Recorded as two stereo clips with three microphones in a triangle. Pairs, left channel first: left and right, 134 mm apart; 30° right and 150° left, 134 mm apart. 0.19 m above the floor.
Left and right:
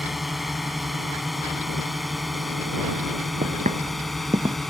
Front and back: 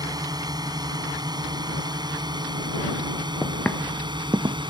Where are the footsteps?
95° right; by 4.6 s 160° right.